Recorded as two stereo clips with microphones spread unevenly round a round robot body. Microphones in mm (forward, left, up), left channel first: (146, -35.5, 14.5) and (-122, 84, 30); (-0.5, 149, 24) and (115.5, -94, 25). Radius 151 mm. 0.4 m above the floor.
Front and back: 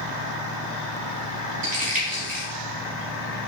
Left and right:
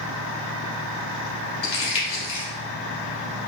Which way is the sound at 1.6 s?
90° left.